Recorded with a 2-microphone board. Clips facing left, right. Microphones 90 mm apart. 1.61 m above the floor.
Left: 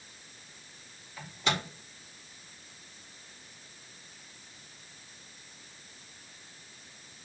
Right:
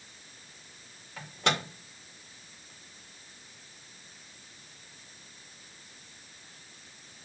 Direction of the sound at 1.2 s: 75° right (ahead or behind).